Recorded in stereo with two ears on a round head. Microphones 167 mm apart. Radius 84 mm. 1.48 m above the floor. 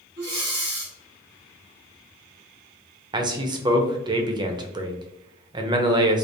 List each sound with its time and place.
0.2 s breathing: 45° right (ahead or behind), 1.9 m
3.1 s a man speaking: 25° right (ahead or behind), 0.6 m